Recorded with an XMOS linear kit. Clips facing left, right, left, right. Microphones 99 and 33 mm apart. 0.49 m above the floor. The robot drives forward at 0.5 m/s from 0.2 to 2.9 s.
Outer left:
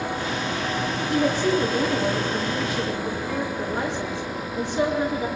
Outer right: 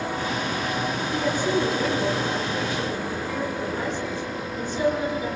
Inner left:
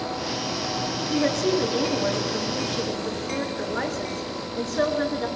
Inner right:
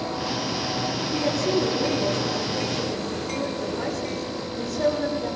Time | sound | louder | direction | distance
1.1 | a woman speaking | outer left 3 dB, inner left 2 dB | 80° left | 6 m